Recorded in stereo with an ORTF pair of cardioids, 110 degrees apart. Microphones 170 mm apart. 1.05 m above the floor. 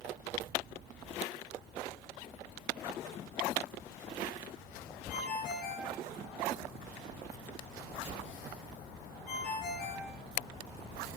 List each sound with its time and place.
5.1 s a ringtone: 60° left, 10 m